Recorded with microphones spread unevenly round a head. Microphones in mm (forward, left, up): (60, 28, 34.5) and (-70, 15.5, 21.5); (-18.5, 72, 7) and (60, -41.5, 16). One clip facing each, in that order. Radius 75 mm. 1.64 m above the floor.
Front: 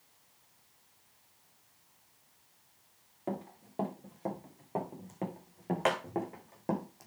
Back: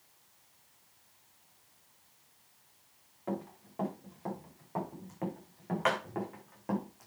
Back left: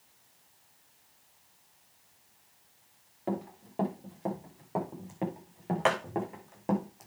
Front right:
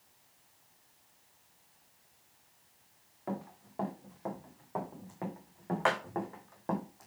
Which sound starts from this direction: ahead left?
Running footsteps, at 3.3 s.